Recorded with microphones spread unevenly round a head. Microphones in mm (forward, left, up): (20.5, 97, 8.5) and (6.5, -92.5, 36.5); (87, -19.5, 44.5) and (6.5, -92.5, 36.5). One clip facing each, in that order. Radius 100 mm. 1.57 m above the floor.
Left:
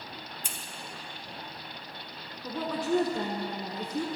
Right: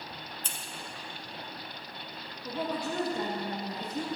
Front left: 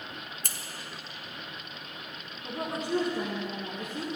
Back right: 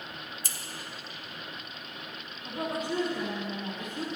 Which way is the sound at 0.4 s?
5° left.